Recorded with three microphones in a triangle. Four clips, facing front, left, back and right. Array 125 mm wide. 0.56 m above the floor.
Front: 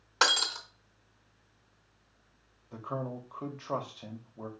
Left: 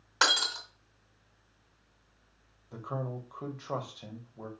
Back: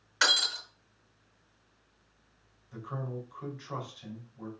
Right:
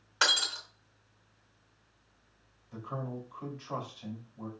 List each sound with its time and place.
0.2 s breaking glass: 30° left, 2.5 m
2.7 s a man speaking: 40° left, 2 m